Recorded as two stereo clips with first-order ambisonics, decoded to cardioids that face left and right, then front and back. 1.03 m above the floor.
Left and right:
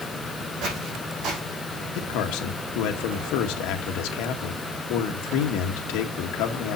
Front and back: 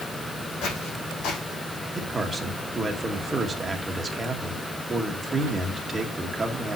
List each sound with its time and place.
0.6 s footsteps: 40° right, 3.5 m
1.9 s a man speaking: 105° left, 1.5 m